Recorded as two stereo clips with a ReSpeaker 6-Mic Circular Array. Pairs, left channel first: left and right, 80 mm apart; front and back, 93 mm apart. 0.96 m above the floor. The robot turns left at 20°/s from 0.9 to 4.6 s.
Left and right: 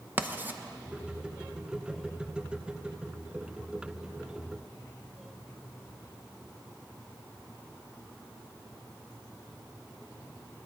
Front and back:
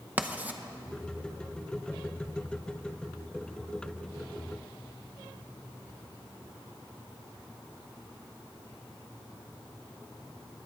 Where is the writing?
125° right, 0.7 m.